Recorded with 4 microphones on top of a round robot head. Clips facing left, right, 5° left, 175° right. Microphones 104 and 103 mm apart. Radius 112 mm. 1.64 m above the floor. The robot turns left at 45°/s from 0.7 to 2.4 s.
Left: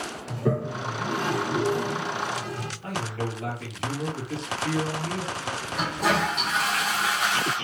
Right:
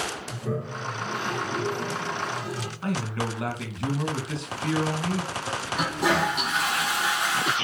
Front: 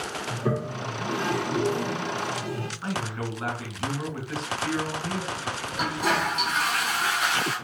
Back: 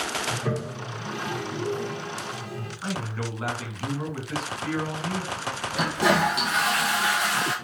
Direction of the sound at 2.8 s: 85° right.